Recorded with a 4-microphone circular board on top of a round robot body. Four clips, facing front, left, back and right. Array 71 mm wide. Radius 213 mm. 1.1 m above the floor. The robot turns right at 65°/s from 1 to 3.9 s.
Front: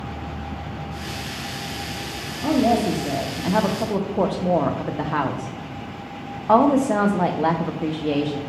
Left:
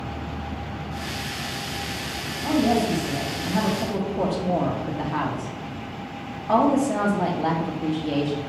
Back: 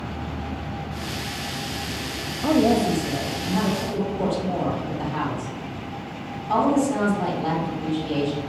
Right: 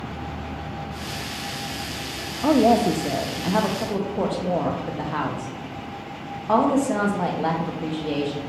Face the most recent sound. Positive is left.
turn(degrees=-10)